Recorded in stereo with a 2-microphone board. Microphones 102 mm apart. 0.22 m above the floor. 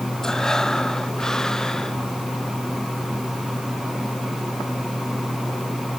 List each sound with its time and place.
0.2 s breathing: 5° left (ahead or behind)